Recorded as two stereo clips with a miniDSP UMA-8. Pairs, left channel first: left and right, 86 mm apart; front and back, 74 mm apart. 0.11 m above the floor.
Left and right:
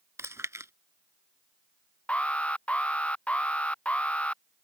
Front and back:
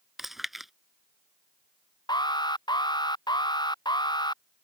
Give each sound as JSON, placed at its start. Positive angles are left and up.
{"t": 0.2, "sound": "chewing", "azimuth_deg": -95}
{"t": 2.1, "sound": "an alarm", "azimuth_deg": 15}